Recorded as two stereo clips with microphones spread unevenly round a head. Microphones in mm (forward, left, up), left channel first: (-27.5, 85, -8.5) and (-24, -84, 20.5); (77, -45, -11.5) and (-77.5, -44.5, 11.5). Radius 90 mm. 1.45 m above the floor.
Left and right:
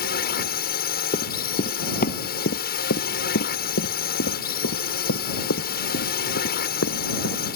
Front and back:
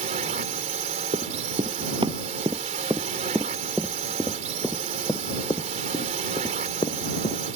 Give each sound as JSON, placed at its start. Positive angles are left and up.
{"t": 0.0, "sound": "a drone", "azimuth_deg": 125}
{"t": 1.1, "sound": "running footsteps", "azimuth_deg": 140}